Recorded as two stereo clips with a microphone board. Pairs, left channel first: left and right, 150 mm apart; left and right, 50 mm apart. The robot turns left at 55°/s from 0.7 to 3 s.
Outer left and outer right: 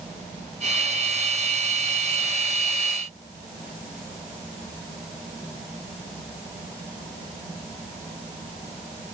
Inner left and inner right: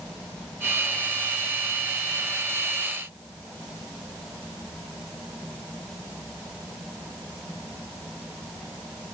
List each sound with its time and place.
Only background noise.